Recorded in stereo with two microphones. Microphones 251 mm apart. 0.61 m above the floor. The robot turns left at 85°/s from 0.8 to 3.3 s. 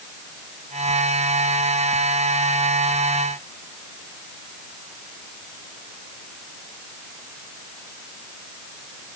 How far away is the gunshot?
I don't hear a gunshot.